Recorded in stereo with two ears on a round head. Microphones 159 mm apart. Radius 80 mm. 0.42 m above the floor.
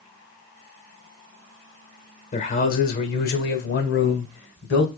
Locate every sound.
2.3 s a man speaking: 40° left (ahead or behind), 1.0 m; by 4.9 s 60° left (ahead or behind), 1.9 m